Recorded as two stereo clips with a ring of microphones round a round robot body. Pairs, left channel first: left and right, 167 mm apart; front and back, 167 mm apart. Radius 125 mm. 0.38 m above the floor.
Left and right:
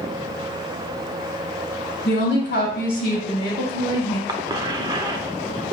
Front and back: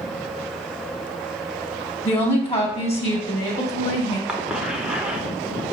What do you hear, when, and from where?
2.0 s a woman speaking: 55° left, 2.5 m; by 4.2 s 45° left, 4 m
4.3 s a cough: 105° right, 1.0 m